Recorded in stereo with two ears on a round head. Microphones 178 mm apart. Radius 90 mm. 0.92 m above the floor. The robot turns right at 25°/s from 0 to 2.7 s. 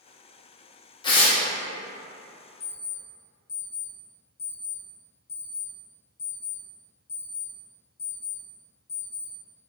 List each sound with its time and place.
1.0 s tearing paper: 25° left (ahead or behind), 0.8 m; by 1.4 s 30° left (ahead or behind), 0.8 m
2.6 s an alarm clock: 25° left (ahead or behind), 1.9 m; by 9.3 s 30° left (ahead or behind), 1.9 m